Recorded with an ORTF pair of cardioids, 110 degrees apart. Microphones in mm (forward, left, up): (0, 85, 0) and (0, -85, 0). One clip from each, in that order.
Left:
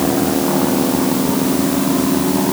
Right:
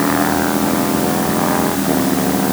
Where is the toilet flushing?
I don't hear a toilet flushing.